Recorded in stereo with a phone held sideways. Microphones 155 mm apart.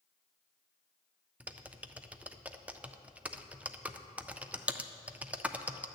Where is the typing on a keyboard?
10° right (ahead or behind), 0.5 m.